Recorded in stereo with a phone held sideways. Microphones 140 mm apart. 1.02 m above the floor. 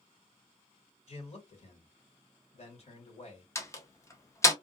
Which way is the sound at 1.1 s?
50° left (ahead or behind).